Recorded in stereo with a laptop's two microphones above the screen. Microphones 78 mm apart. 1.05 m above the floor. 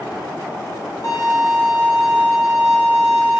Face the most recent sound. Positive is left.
turn(degrees=50)  # may be behind; listen again after turning